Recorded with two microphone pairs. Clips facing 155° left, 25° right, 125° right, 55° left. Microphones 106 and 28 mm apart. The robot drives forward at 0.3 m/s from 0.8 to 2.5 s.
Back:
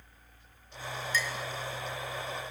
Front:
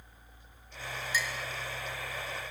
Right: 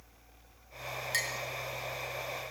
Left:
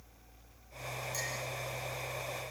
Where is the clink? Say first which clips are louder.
Back 1 dB, right 7 dB; 105° right, 1.9 m.